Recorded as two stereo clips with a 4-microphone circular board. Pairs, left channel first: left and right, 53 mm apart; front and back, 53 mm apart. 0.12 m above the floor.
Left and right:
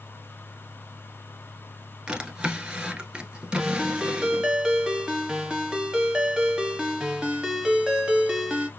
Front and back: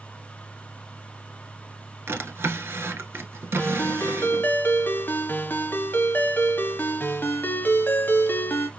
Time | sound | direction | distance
2.1 | a drawer | 155° right | 0.9 m
3.6 | a ringtone | 25° right | 1.2 m